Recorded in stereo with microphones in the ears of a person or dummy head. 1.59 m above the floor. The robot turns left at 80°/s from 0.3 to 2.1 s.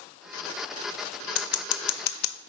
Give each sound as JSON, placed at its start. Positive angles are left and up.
{"t": 1.4, "sound": "scissors", "side_deg": 55, "distance_m": 1.0}